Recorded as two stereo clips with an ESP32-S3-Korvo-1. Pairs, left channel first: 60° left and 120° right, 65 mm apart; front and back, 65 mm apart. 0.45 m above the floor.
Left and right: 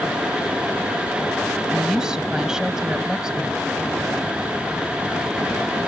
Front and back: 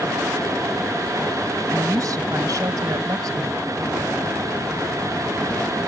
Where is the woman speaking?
165° left.